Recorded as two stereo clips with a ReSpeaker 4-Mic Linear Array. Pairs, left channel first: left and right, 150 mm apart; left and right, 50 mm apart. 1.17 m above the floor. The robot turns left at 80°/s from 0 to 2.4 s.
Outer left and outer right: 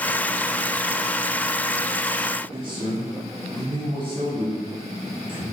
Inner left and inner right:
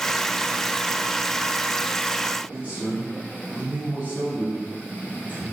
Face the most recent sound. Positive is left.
turn(degrees=-35)  # may be behind; listen again after turning